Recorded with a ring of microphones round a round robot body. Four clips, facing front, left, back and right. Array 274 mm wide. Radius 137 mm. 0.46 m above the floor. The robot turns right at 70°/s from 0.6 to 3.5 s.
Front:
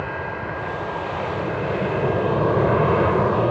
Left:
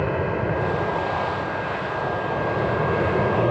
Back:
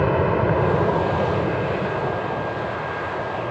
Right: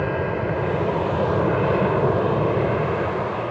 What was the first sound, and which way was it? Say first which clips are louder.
An aircraft: even, back 9 dB; 175° right.